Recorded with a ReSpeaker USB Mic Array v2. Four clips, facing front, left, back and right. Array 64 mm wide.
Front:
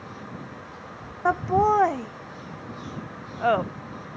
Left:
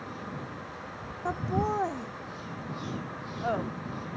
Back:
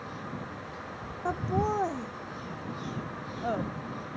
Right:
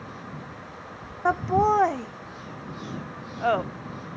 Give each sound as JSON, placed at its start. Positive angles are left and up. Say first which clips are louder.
{"t": 1.2, "sound": "laughter", "louder": "right 9 dB, front 9 dB", "azimuth_deg": -40}